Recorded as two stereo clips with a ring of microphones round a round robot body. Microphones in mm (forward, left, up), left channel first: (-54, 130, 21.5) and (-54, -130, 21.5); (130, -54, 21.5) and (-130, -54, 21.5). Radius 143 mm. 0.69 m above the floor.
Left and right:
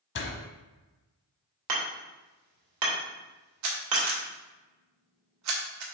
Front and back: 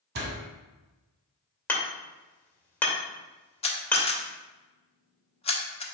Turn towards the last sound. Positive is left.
turn(degrees=-65)